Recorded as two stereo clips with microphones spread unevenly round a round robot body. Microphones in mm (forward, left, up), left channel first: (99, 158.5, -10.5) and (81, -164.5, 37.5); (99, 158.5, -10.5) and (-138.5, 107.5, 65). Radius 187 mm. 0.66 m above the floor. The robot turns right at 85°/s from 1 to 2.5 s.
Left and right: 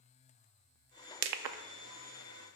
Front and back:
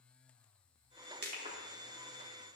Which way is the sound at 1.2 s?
105° right.